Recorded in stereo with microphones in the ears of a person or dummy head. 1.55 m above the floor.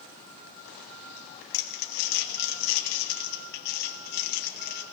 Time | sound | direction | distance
1.5 | crumpling | 50° left (ahead or behind) | 1.1 m